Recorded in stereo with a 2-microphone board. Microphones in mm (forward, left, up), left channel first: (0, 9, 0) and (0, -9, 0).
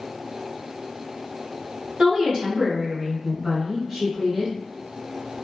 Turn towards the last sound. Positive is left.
turn(degrees=-25)  # may be behind; listen again after turning